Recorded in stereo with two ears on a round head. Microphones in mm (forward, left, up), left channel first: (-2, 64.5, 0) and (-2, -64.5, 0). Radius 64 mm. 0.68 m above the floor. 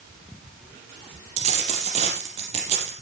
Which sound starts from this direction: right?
A dropped coin, at 1.4 s.